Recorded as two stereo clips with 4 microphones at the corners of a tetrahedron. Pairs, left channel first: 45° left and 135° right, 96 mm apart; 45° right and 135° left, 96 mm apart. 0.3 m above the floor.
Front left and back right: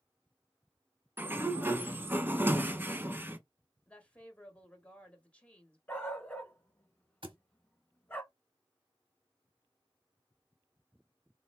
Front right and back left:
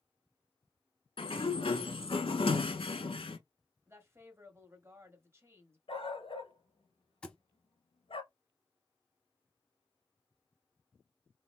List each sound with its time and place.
1.2 s a sliding door: 65° right, 0.7 m
3.9 s a woman speaking: 110° left, 1.4 m
5.9 s a dog barking: 30° right, 1.4 m
7.2 s a thud: 125° right, 0.9 m